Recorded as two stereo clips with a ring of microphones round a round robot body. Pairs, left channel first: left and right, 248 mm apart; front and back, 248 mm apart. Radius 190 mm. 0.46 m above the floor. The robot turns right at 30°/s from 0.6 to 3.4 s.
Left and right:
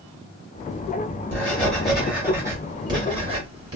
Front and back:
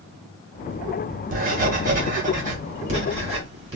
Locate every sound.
1.3 s writing: 165° left, 1.4 m; by 3.8 s 135° right, 1.4 m